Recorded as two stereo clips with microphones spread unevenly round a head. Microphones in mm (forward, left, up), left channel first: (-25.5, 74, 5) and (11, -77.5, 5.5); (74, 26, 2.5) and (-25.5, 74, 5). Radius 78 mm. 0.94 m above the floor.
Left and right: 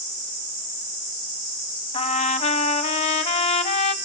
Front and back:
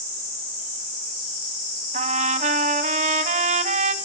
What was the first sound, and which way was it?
A trumpet, 155° left.